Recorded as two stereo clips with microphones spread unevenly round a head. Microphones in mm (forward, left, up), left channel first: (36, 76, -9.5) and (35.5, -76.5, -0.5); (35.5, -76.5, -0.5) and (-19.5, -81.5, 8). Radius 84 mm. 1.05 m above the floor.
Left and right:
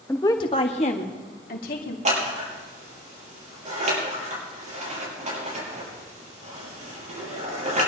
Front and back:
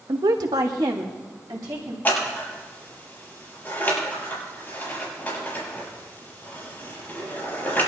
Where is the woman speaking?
170° left, 0.8 m; by 1.9 s 130° left, 2 m.